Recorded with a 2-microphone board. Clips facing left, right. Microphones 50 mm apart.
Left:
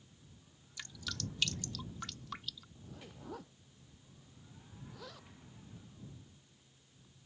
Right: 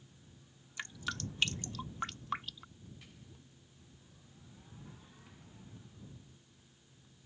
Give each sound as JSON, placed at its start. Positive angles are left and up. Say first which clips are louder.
{"t": 0.8, "sound": "dripping", "louder": "right 4 dB", "side_deg": -30}
{"t": 2.8, "sound": "a zipper", "louder": "left 3 dB", "side_deg": 75}